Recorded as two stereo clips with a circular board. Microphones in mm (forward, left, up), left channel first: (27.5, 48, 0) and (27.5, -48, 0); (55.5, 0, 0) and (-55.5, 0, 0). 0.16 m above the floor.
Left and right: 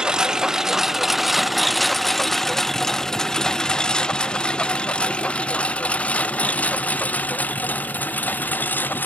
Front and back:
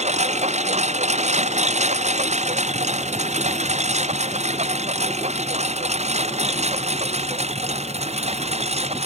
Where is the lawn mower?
170° right; by 9.1 s 160° left.